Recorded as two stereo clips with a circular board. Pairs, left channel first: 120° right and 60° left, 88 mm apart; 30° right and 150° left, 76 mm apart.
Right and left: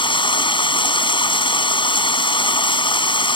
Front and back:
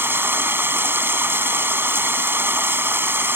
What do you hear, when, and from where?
0.0 s running water: 145° right